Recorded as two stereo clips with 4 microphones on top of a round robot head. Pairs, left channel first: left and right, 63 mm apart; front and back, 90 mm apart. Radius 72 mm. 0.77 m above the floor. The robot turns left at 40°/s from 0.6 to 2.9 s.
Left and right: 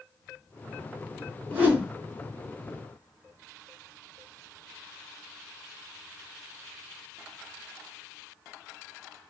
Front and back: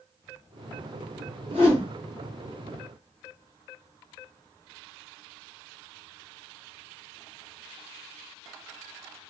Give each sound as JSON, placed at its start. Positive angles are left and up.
{"t": 1.5, "sound": "a whoosh", "azimuth_deg": -145, "distance_m": 1.0}